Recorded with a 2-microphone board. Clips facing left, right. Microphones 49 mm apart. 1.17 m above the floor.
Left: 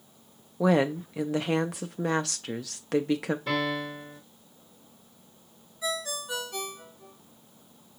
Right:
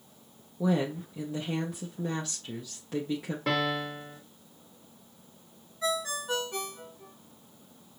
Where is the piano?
75° right (ahead or behind), 1.8 m.